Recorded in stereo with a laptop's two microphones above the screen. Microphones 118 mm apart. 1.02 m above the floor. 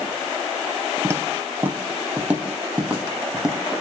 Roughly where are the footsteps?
Right.